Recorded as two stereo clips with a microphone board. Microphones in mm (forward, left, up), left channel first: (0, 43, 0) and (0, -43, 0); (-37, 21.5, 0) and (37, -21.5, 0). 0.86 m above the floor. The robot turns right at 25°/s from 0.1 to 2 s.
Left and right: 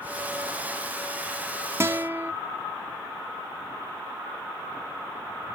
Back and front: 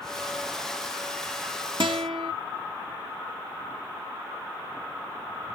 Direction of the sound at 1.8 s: 35° right.